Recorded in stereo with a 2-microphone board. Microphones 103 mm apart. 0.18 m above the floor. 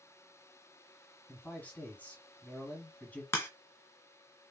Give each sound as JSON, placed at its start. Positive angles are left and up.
{"t": 1.3, "sound": "a man speaking", "side_deg": 15, "distance_m": 1.2}
{"t": 3.3, "sound": "a crack", "side_deg": 25, "distance_m": 0.8}